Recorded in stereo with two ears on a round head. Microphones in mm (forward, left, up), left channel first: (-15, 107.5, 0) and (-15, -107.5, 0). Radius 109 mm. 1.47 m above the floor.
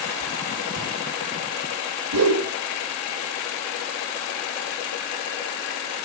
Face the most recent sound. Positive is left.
turn(degrees=-70)  # may be behind; listen again after turning